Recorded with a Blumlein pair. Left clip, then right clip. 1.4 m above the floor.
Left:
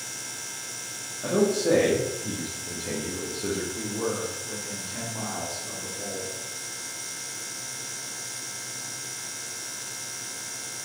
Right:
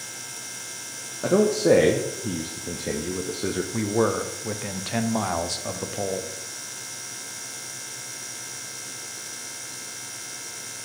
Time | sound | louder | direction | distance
1.2 | a man speaking | right 4 dB | 65° right | 0.5 m
3.7 | a man speaking | right 6 dB | 40° right | 0.5 m